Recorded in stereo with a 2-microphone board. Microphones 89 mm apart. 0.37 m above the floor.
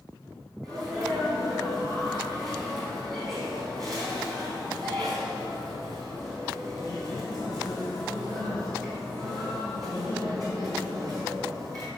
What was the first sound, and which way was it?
A sneeze, 45° right (ahead or behind).